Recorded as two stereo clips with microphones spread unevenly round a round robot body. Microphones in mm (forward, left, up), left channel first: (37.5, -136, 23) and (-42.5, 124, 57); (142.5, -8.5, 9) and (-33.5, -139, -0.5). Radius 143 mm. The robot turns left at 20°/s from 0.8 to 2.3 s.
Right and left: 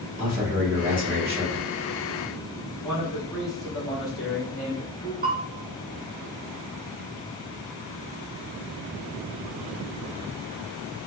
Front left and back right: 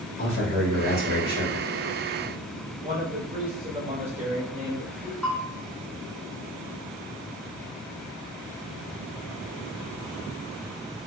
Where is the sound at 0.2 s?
160° right, 1.4 m; by 1.8 s straight behind, 1.4 m.